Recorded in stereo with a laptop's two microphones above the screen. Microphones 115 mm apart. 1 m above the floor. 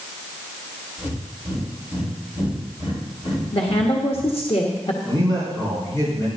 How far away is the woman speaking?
About 1.2 m.